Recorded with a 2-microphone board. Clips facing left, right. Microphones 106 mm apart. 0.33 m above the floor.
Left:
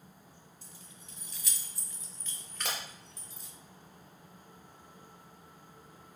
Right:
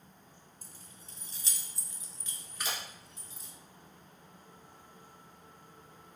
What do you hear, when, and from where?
0.6 s keys jangling: 45° right (ahead or behind), 1.4 m; by 3.5 s centre (ahead or behind), 2.5 m
2.6 s breaking glass: 60° left (ahead or behind), 2.5 m